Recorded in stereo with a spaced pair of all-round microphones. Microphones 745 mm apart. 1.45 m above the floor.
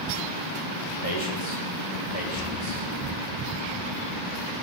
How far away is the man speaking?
About 6 m.